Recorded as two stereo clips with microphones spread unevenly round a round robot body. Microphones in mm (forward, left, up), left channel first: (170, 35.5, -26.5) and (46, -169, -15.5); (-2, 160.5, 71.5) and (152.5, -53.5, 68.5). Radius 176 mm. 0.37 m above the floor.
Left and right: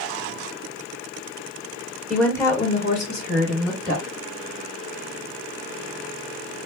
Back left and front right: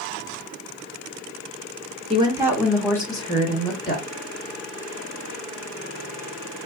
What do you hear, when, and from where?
2.1 s a woman speaking: 25° right, 1.1 m; by 4.0 s 70° left, 1.8 m